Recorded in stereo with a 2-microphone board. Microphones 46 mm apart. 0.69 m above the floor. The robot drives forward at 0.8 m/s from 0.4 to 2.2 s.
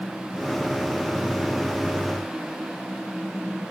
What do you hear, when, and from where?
Only background noise.